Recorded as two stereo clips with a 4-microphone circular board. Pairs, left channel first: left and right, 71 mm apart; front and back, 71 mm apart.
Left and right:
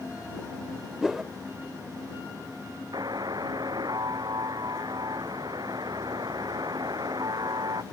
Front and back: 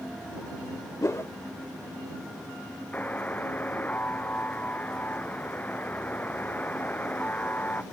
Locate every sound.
1.0 s a whoosh: 5° right
2.9 s a buzzer: 65° right